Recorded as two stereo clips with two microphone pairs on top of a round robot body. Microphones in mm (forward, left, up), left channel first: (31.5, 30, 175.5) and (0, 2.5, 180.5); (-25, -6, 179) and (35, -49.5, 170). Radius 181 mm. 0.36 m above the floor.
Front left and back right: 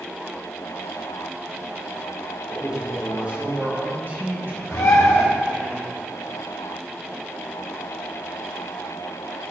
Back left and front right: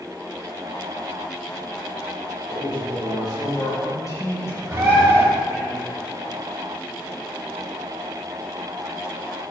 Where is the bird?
25° left, 0.9 m.